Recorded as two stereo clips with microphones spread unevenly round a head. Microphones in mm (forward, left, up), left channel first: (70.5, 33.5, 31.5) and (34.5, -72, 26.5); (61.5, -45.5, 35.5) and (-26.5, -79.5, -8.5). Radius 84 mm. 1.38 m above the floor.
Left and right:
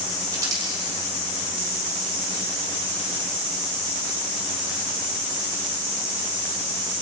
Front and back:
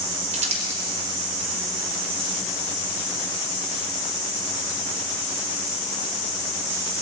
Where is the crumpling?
Straight behind, 4 m.